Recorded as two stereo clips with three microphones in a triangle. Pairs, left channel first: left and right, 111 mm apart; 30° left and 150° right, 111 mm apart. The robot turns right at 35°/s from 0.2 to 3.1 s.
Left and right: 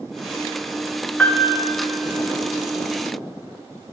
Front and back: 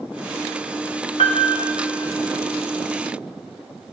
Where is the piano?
10° left, 1.5 m; by 1.7 s 25° left, 1.5 m.